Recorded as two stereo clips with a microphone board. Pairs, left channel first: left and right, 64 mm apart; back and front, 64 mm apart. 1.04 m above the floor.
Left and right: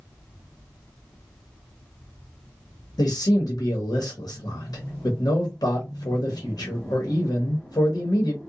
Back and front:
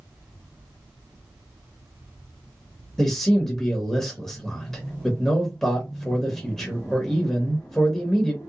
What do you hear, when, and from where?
3.0 s a man speaking: 95° left, 0.9 m